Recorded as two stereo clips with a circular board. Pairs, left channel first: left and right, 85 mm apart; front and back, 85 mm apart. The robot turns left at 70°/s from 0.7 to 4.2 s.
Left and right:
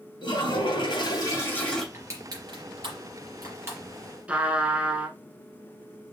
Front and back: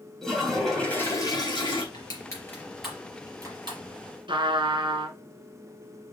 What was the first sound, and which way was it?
A toilet flushing, 85° left.